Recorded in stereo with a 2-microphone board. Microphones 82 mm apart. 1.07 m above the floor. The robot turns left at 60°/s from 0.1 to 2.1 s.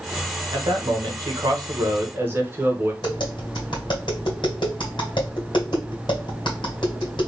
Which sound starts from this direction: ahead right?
A man speaking, at 0.5 s.